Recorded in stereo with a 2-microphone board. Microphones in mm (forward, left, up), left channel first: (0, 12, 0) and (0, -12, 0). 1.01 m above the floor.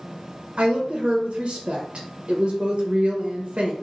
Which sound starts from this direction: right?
A woman speaking, at 0.6 s.